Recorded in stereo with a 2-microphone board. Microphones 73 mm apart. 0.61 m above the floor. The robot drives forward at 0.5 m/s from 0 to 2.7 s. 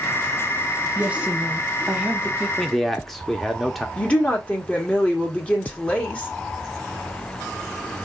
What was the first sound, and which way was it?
A woman speaking, 20° right (ahead or behind).